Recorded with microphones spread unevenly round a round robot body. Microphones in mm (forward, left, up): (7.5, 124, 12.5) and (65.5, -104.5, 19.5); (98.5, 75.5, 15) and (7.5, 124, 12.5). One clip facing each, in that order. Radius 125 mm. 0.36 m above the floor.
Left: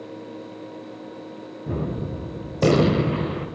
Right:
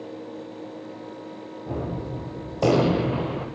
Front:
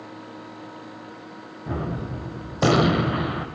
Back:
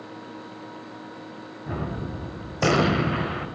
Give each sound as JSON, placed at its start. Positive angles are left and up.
{"t": 1.7, "sound": "a gunshot", "azimuth_deg": 50, "distance_m": 1.5}